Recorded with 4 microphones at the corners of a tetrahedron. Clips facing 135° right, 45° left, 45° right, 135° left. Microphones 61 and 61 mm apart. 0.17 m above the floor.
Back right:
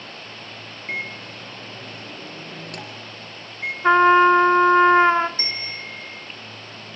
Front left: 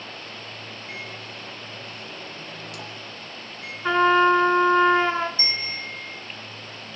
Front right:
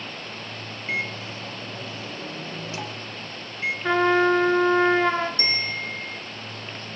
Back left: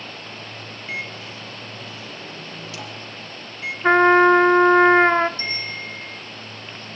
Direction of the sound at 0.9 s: 105° right.